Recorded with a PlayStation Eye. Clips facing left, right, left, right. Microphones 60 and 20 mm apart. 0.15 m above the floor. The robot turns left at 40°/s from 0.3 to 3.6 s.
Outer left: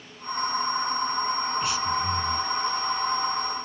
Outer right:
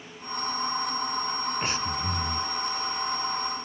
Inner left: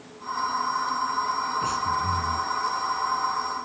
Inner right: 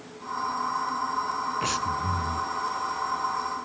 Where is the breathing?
65° right, 0.9 m; by 2.5 s 100° right, 0.9 m.